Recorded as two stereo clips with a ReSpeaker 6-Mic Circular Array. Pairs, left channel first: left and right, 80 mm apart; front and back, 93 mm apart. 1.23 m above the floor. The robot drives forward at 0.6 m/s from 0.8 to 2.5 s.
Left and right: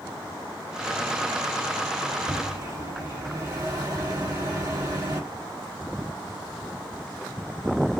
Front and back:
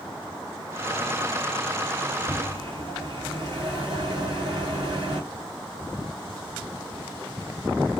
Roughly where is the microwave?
Behind right.